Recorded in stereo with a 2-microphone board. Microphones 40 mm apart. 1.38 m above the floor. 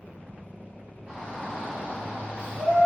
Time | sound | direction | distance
1.1 | a shout | 20° right (ahead or behind) | 1.3 m